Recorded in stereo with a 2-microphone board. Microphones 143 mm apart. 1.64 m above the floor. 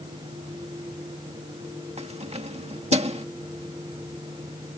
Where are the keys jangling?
45° right (ahead or behind).